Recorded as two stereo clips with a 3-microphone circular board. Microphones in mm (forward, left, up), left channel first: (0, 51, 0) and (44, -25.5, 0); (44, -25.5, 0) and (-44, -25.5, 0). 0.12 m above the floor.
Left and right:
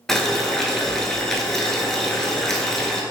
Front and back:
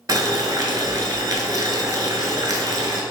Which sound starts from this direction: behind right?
Boiling, at 0.1 s.